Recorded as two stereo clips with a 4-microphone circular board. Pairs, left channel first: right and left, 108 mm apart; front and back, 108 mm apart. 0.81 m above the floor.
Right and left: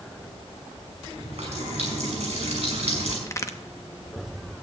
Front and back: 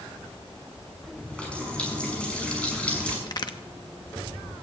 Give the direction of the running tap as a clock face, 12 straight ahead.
9 o'clock.